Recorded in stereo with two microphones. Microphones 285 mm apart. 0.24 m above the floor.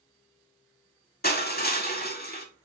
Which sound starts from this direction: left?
Crushing, at 1.2 s.